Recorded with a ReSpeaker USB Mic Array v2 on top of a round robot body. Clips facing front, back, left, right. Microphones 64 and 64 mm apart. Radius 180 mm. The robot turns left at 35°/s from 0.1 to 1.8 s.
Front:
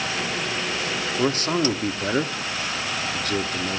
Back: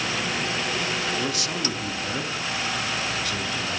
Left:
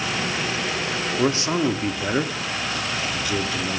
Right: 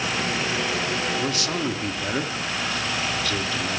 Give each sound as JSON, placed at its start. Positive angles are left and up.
{"t": 1.2, "sound": "a man speaking", "azimuth_deg": 40, "distance_m": 1.0}